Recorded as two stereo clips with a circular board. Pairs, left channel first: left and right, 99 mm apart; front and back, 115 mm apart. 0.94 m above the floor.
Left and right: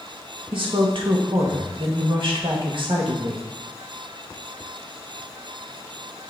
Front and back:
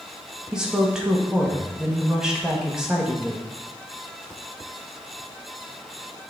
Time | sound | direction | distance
0.5 | a woman speaking | 95° right | 1.3 m